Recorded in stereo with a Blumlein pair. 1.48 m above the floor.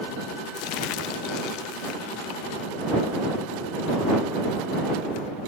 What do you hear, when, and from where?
0.6 s crumpling: 40° left